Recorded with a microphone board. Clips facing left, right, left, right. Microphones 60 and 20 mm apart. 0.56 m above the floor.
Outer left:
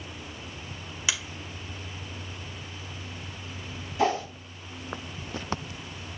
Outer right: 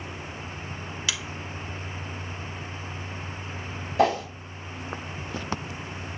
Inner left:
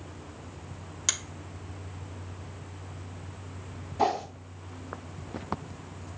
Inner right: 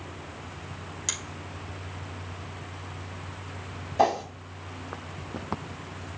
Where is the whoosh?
75° right (ahead or behind), 1.6 m.